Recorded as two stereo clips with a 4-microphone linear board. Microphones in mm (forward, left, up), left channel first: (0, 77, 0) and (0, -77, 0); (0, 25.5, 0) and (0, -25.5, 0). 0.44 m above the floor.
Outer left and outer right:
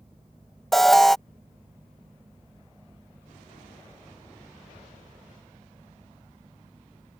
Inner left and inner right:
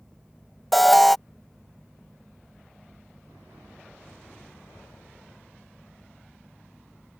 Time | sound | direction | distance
0.7 | an alarm | centre (ahead or behind) | ?